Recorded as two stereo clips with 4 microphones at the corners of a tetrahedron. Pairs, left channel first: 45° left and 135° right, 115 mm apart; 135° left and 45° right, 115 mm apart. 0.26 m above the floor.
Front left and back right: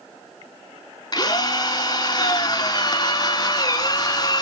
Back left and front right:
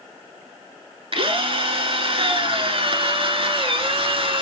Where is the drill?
10° right, 1.1 m.